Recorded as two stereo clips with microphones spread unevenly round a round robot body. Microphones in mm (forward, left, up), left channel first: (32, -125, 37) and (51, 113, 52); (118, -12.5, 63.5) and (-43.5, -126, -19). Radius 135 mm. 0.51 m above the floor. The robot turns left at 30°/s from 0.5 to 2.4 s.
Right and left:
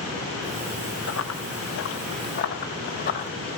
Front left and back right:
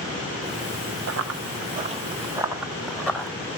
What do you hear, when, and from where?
1.1 s running footsteps: 130° right, 0.8 m; by 3.3 s 40° right, 1.5 m